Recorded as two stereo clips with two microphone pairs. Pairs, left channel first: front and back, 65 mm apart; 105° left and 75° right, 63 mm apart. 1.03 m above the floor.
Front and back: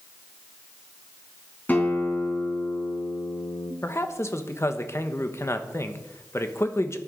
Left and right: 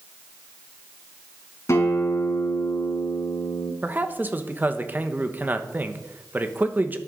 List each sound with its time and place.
1.7 s a guitar: 65° left, 3.5 m
3.8 s a man speaking: 25° right, 1.2 m